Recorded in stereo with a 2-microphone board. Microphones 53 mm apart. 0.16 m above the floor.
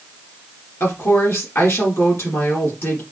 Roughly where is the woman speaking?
Left.